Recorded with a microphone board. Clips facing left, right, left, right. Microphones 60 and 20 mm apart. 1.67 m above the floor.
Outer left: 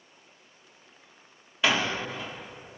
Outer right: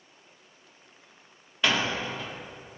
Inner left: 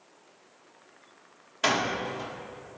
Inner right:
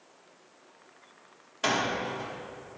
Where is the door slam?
5° left (ahead or behind), 1.8 m.